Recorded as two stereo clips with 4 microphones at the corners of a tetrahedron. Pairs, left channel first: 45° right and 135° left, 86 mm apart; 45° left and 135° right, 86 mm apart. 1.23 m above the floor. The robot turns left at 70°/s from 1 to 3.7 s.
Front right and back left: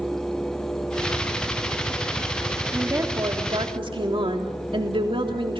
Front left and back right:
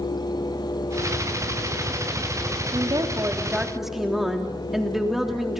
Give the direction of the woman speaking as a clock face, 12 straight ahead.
5 o'clock.